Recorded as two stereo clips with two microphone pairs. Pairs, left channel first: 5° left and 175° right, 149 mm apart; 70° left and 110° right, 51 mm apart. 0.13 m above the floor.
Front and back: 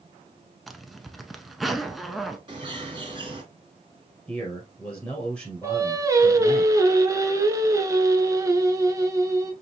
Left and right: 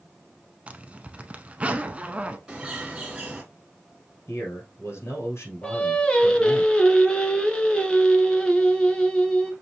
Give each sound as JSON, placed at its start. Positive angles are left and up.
{"t": 0.7, "sound": "a zipper", "azimuth_deg": -80, "distance_m": 0.5}
{"t": 2.5, "sound": "a bird", "azimuth_deg": -170, "distance_m": 2.0}
{"t": 4.3, "sound": "a man speaking", "azimuth_deg": 75, "distance_m": 1.9}
{"t": 5.6, "sound": "singing", "azimuth_deg": 130, "distance_m": 0.8}